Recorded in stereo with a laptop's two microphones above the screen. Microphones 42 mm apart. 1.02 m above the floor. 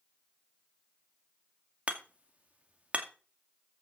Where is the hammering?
35° right (ahead or behind), 2 m.